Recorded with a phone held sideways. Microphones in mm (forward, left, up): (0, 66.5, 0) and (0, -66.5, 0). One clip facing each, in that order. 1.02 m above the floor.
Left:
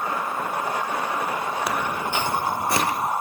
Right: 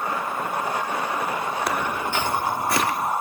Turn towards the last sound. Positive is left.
turn(degrees=25)  # may be behind; listen again after turning